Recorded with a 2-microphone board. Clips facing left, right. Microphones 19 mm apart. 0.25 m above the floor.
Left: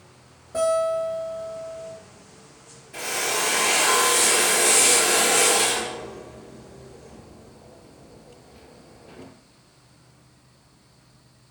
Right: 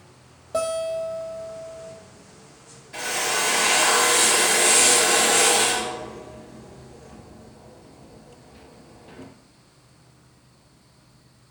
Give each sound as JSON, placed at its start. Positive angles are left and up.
{"t": 0.5, "sound": "a guitar", "side_deg": -80, "distance_m": 1.4}
{"t": 2.9, "sound": "a drill", "side_deg": -35, "distance_m": 0.8}